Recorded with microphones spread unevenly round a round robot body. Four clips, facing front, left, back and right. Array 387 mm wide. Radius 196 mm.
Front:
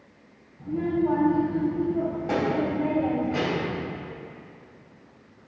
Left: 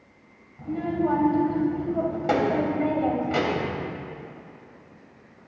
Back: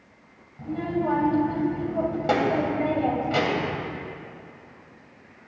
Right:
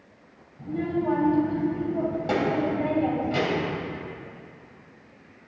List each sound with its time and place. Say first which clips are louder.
0.6 s a child speaking: left 1 dB, front 2 dB; 150° left, 3 m